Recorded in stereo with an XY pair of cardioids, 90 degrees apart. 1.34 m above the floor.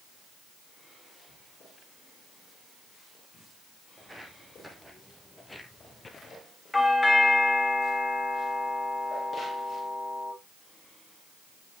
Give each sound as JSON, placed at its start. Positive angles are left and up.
{"t": 4.0, "sound": "footsteps", "azimuth_deg": -10, "distance_m": 4.0}
{"t": 6.7, "sound": "a doorbell", "azimuth_deg": 15, "distance_m": 3.0}